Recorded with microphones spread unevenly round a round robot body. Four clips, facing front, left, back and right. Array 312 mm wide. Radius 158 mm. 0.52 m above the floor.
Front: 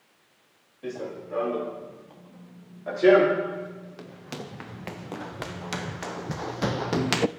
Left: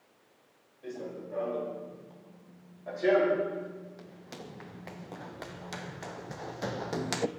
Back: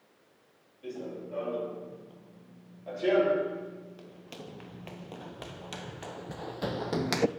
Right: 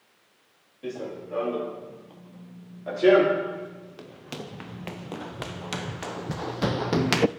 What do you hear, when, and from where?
0.8 s running footsteps: 40° right, 6.5 m; by 7.3 s 65° right, 0.8 m